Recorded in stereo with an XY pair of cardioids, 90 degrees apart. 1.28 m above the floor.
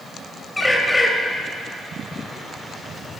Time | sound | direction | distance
0.6 | a bird | 15° left | 3 m